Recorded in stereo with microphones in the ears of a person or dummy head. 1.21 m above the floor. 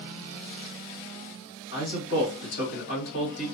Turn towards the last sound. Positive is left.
turn(degrees=60)  # may be behind; listen again after turning